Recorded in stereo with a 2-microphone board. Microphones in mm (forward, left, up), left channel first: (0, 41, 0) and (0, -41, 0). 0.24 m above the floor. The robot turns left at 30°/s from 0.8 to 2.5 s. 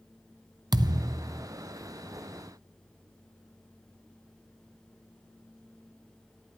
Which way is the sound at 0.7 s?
60° right (ahead or behind).